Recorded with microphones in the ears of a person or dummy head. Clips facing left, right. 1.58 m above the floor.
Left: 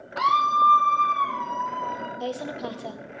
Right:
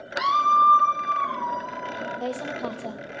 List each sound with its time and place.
0.2 s a scream: 15° right (ahead or behind), 0.6 m; by 2.1 s 55° left (ahead or behind), 2.0 m
2.2 s a woman speaking: 10° left (ahead or behind), 0.9 m